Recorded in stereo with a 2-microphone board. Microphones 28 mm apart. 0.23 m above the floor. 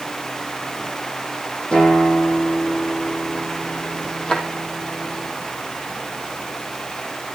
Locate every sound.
1.7 s a guitar: 40° left (ahead or behind), 7.5 m
4.3 s a drawer: 30° left (ahead or behind), 3.5 m